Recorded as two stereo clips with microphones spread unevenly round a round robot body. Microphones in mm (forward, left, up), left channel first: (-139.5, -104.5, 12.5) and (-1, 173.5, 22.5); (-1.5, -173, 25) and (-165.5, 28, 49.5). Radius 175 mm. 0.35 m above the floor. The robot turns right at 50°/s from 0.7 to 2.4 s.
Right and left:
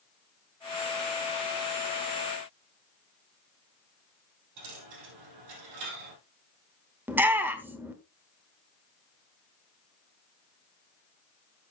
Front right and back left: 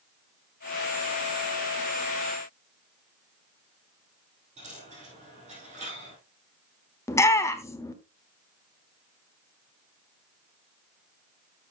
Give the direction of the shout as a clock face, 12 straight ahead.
12 o'clock.